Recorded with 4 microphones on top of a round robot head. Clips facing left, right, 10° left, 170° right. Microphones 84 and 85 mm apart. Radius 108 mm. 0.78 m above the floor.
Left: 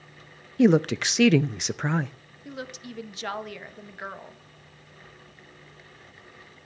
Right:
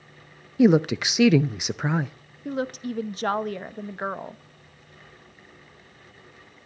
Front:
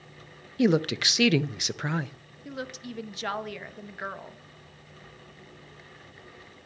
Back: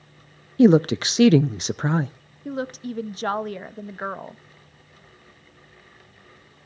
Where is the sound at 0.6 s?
170° right, 0.5 m.